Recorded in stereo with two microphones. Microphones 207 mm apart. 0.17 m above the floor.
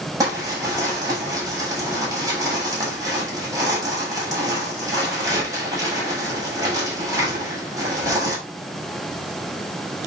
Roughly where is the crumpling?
Centre.